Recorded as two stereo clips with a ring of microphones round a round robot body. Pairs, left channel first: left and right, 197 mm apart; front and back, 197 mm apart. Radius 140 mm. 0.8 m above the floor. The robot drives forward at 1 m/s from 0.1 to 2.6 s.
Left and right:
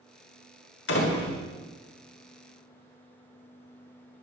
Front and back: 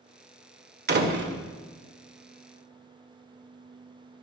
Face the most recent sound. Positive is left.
turn(degrees=160)